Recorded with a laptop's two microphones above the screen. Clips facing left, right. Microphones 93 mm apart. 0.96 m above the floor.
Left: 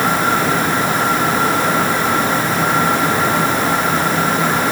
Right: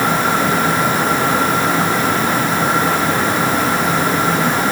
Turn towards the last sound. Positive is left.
No sound to turn to.